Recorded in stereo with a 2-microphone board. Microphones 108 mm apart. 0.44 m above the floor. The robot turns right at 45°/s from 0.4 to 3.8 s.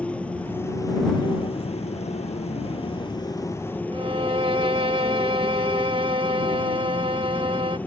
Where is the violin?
60° right (ahead or behind).